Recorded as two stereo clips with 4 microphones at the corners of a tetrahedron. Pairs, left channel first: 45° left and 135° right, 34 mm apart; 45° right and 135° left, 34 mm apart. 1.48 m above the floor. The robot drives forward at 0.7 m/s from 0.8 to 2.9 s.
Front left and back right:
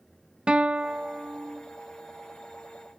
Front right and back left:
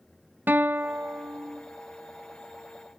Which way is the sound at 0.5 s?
160° left.